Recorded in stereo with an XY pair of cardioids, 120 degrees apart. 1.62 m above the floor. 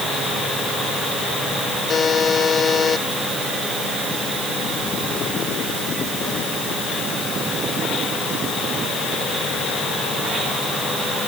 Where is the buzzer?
30° left.